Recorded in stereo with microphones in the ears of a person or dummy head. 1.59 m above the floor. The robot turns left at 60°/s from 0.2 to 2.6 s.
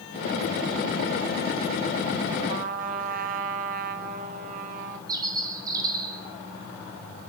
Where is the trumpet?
40° right (ahead or behind), 3 m; by 5.0 s 50° right (ahead or behind), 3 m.